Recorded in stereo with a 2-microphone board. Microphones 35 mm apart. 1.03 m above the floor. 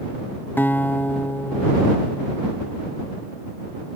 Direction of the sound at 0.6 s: 65° left (ahead or behind).